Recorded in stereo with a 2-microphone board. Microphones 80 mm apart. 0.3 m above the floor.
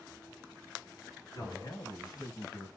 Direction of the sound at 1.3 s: 55° left (ahead or behind).